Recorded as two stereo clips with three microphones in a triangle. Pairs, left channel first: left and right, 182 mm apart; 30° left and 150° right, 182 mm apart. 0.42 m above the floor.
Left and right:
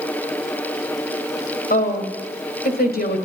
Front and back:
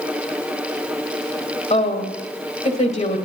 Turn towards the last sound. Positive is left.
turn(degrees=75)